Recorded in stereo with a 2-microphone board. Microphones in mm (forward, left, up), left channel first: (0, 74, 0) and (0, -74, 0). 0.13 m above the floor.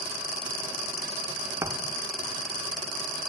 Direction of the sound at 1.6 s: 20° right (ahead or behind).